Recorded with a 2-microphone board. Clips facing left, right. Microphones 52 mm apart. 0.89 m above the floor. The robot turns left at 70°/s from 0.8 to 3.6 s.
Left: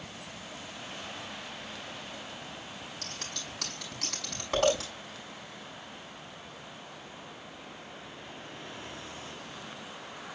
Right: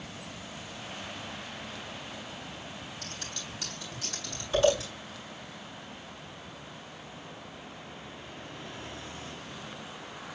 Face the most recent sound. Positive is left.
turn(degrees=85)